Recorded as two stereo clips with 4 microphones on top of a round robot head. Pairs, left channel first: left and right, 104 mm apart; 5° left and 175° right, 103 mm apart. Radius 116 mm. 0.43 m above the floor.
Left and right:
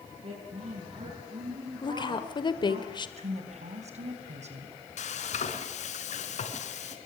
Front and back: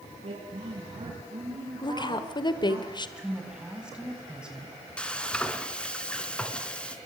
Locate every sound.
0.2 s a woman speaking: 130° right, 6 m; by 2.8 s 120° right, 4.5 m
1.8 s a woman speaking: 50° left, 1.9 m
3.2 s a woman speaking: 90° right, 5 m
5.0 s frying: 90° left, 3 m